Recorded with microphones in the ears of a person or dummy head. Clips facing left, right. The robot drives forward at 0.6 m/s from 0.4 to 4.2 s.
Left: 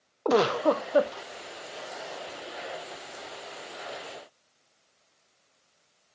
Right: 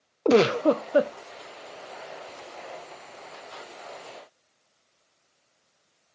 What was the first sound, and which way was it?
A giggle, 25° right (ahead or behind).